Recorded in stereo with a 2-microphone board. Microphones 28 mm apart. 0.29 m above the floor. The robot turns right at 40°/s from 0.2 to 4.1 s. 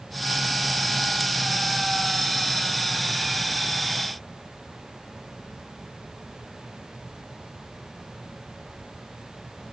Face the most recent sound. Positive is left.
No sound to turn to.